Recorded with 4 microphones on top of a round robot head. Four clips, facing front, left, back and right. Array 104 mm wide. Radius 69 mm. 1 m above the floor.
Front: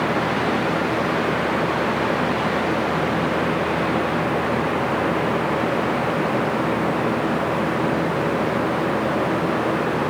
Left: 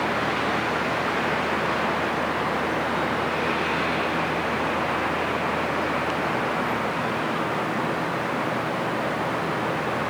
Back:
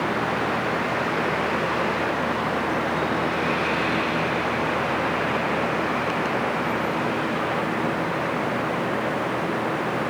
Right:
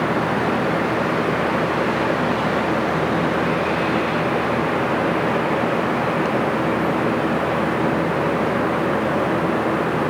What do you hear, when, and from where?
Only background noise.